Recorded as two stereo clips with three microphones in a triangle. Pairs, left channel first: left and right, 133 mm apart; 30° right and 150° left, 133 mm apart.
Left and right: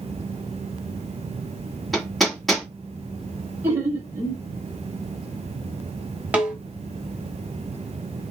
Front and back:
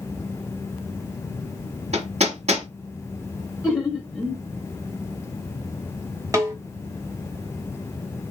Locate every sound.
1.9 s hammering: straight behind, 1.2 m
3.6 s laughter: 135° right, 0.9 m
6.3 s a snare drum: 165° right, 0.9 m